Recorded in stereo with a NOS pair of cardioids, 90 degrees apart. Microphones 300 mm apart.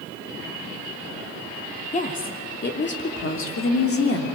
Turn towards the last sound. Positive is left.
turn(degrees=55)